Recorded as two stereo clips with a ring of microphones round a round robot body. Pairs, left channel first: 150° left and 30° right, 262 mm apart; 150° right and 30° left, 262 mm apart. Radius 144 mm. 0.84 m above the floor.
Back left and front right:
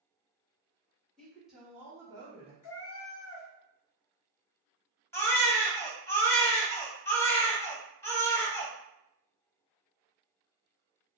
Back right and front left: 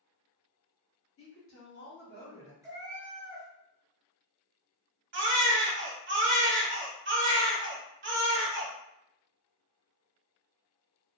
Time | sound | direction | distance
1.2 | a woman speaking | 120° right | 1.5 m
2.6 | a cat meowing | 110° left | 0.6 m
5.1 | a baby crying | 70° left | 0.8 m